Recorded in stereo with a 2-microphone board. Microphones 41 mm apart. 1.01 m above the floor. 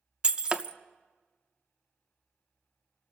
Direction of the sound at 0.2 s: 25° right (ahead or behind).